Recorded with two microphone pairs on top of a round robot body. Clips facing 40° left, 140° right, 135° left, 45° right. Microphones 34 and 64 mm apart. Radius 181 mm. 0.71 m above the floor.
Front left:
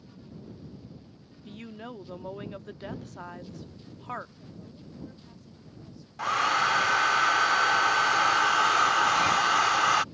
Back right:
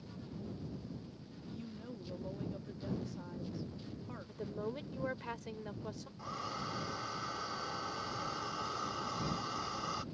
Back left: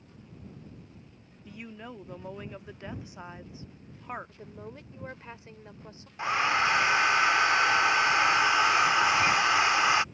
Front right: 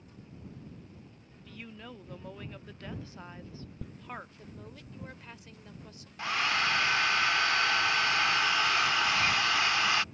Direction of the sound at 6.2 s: 65° left.